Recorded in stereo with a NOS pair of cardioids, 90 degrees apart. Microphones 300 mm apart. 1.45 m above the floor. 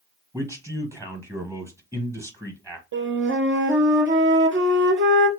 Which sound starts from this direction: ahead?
A man speaking, at 0.3 s.